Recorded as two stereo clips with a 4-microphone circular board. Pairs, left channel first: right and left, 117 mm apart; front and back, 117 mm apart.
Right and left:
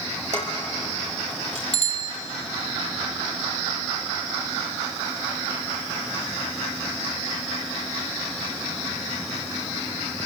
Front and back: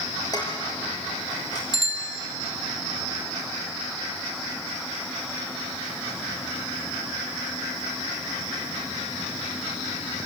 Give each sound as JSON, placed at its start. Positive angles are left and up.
{"t": 0.3, "sound": "dishes clattering", "azimuth_deg": 60, "distance_m": 5.0}
{"t": 1.7, "sound": "a bicycle bell", "azimuth_deg": -60, "distance_m": 3.5}